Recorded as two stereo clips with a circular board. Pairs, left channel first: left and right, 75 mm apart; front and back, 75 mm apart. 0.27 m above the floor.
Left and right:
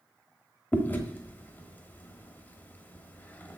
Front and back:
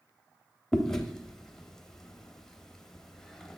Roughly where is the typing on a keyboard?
No typing on a keyboard in this recording.